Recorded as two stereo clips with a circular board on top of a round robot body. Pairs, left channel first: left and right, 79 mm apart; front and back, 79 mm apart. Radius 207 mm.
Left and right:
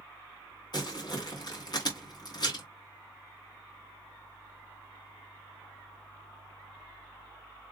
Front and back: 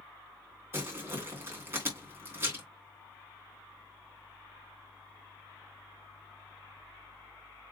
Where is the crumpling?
120° left, 3 m.